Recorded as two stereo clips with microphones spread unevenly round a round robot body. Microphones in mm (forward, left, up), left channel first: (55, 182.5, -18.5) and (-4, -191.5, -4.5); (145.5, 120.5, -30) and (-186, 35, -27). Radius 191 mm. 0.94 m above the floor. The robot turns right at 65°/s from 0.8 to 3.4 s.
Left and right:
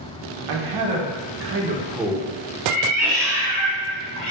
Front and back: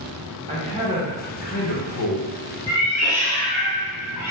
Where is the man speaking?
95° right, 0.7 m; by 2.3 s straight ahead, 0.7 m.